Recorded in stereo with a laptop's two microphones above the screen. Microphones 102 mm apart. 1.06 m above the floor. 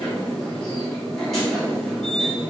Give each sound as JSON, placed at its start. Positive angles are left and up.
{"t": 0.0, "sound": "a machine running", "side_deg": 5, "distance_m": 1.6}